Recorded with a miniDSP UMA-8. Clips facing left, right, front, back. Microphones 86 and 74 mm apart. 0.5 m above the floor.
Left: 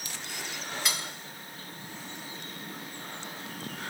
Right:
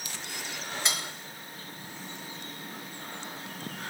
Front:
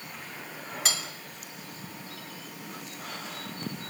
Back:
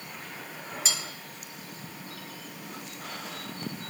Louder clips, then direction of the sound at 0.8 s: Right 1 dB, front 3 dB; 30° right.